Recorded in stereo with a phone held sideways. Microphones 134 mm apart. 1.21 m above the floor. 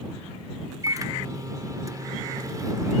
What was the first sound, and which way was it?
A microwave, 30° right (ahead or behind).